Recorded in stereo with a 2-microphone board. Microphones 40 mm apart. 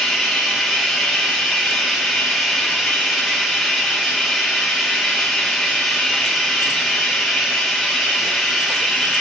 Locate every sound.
0.0 s running water: centre (ahead or behind), 4 m